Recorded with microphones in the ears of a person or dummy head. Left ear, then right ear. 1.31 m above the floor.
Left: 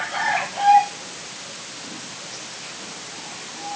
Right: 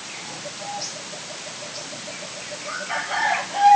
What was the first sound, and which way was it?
Only background noise.